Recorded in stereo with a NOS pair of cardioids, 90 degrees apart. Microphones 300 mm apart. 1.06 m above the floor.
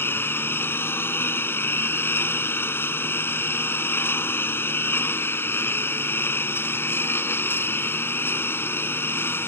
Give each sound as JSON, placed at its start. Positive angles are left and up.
{"t": 0.0, "sound": "a lawn mower", "azimuth_deg": 5}